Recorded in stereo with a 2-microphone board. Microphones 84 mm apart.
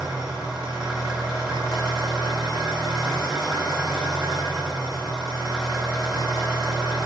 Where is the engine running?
5° right (ahead or behind), 1.6 m.